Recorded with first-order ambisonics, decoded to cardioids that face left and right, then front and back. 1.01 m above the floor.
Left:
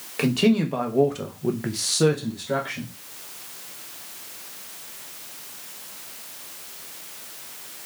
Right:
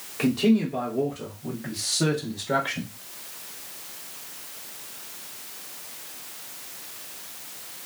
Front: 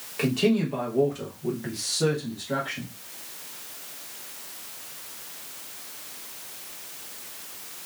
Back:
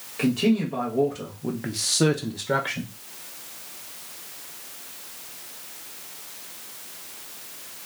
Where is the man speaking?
80° left, 1.1 m; by 2.9 s 155° right, 0.8 m.